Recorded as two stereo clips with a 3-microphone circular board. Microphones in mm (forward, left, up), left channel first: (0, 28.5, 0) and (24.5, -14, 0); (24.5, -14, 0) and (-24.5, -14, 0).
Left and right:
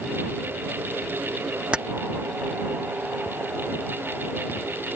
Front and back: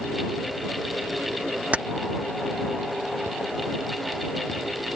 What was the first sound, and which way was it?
Keys jangling, 125° right.